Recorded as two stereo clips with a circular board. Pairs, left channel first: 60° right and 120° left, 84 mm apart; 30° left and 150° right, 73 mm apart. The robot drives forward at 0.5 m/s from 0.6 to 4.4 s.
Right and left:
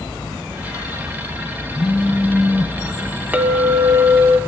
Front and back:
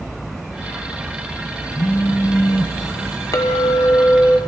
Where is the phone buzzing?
15° left, 1.0 m; by 2.8 s 40° left, 0.6 m.